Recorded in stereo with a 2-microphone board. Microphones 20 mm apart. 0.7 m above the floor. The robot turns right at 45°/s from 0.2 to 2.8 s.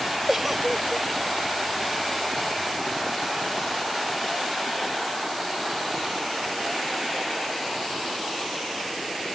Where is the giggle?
20° right; by 1.1 s 15° left.